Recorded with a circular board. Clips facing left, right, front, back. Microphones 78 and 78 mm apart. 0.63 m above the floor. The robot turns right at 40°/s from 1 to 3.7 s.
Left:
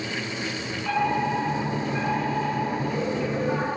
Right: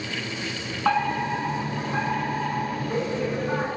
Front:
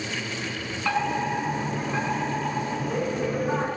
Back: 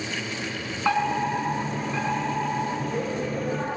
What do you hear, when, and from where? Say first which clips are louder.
0.8 s a fire alarm: right 1 dB, back 2 dB; 110° right, 10 m; by 3.7 s 5° right, 10 m